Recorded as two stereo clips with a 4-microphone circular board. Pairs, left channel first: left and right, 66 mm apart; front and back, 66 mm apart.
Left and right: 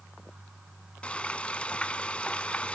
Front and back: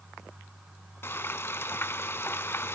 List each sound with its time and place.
1.0 s frying: 30° left, 0.6 m